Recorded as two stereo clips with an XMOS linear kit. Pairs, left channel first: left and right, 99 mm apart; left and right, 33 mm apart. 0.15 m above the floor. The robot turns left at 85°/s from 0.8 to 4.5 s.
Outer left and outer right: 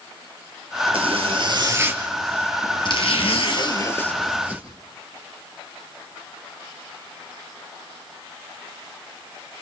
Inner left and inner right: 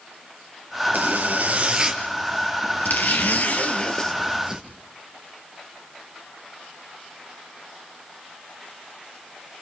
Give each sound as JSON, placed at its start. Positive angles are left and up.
{"t": 0.9, "sound": "a zipper", "azimuth_deg": -75, "distance_m": 2.5}